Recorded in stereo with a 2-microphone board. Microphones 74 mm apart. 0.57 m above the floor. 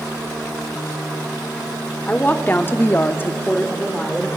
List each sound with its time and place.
2.1 s a woman speaking: 20° left (ahead or behind), 1.7 m; by 4.3 s 10° left (ahead or behind), 2 m